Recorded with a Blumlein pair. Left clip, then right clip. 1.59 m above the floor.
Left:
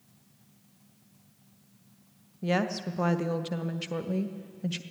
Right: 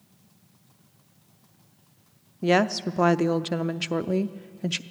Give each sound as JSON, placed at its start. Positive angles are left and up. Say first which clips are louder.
{"t": 2.4, "sound": "a woman speaking", "louder": "right 7 dB", "azimuth_deg": -20, "distance_m": 0.5}